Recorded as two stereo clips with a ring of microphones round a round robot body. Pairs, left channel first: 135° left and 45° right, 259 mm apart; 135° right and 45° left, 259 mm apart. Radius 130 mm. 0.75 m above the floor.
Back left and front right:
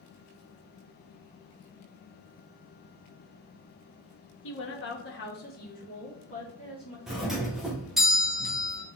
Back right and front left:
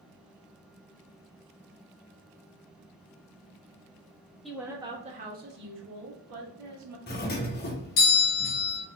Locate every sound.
4.4 s a woman speaking: 135° left, 0.9 m; by 7.0 s 65° left, 1.9 m
7.1 s a doorbell: 135° right, 0.9 m